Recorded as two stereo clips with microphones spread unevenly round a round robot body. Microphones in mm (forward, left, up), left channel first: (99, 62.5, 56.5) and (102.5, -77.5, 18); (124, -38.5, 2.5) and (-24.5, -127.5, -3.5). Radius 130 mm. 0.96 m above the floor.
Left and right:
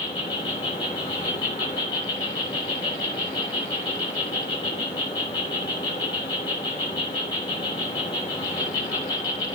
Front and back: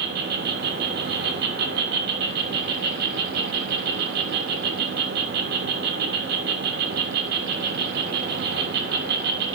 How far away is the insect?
About 1.1 m.